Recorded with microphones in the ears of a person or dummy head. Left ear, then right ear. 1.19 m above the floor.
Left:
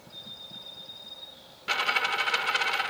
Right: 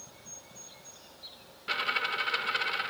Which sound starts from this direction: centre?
A dropped coin, at 1.7 s.